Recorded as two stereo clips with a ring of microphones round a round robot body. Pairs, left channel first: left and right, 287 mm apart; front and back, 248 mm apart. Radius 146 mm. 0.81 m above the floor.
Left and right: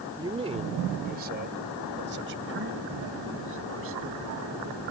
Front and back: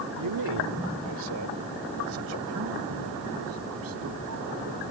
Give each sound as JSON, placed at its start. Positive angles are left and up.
{"t": 0.2, "sound": "a man speaking", "azimuth_deg": -165}